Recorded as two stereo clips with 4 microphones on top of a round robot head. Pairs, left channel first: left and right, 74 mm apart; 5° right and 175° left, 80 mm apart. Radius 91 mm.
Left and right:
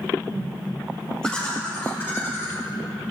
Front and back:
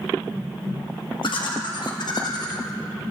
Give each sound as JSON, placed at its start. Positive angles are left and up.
{"t": 1.2, "sound": "laughter", "azimuth_deg": 10, "distance_m": 2.0}